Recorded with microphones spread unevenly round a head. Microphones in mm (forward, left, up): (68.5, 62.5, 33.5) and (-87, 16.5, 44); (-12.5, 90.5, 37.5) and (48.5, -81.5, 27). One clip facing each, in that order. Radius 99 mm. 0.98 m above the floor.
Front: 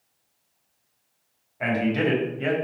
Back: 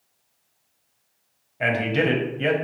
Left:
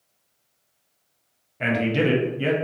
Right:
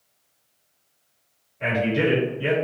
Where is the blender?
No blender in this recording.